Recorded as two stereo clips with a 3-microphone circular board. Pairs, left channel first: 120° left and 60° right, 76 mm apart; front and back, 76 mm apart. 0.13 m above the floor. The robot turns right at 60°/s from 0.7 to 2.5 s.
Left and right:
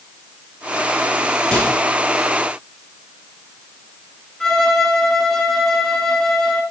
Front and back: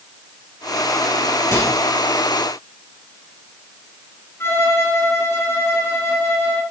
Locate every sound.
1.5 s a microwave: 35° left, 3 m; by 1.8 s 50° left, 3 m
4.4 s a violin: 35° left, 0.9 m